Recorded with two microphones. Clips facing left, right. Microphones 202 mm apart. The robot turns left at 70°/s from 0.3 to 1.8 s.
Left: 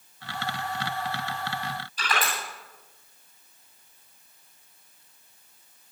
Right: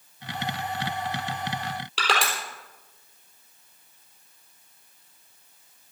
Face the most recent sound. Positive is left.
turn(degrees=-85)